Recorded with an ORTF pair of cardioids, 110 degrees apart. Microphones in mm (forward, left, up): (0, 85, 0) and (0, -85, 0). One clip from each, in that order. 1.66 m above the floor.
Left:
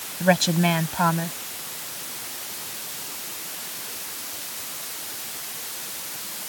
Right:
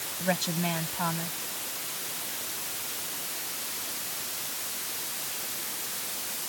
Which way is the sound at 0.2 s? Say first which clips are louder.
Left 10 dB; 50° left.